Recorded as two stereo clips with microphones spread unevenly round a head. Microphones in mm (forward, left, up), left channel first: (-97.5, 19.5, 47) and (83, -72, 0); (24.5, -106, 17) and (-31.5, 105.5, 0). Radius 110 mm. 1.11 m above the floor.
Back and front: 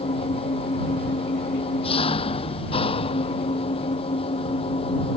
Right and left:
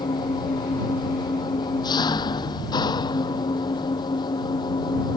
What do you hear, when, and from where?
0.0 s an engine running: 145° right